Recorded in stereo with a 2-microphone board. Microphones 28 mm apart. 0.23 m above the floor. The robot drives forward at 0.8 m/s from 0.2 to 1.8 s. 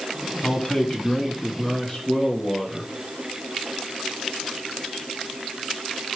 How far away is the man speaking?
About 1.6 m.